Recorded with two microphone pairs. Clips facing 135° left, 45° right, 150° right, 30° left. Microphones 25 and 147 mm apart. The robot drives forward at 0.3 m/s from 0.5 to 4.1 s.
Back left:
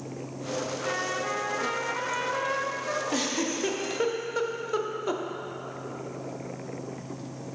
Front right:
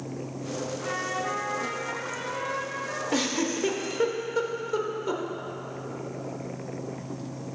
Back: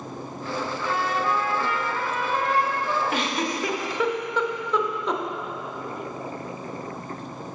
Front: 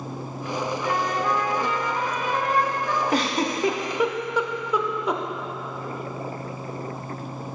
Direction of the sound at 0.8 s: 60° left.